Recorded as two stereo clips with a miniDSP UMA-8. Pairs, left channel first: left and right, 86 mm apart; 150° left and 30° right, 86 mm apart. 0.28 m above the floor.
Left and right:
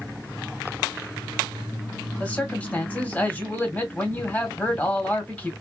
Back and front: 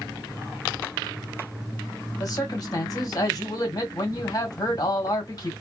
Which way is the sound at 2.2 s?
155° left.